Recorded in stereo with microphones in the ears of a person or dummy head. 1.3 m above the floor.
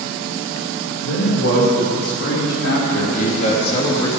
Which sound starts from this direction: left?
A man speaking, at 1.0 s.